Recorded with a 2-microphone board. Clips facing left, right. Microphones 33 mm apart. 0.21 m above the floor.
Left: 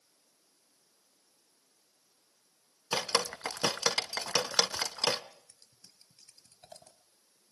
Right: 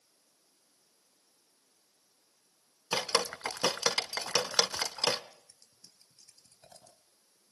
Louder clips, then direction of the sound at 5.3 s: Even; 55° left (ahead or behind).